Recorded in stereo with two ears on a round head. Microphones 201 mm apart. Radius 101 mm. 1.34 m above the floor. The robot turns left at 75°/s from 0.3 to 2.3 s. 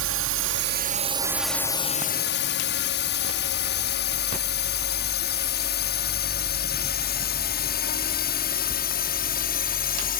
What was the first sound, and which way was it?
A drone, 65° right (ahead or behind).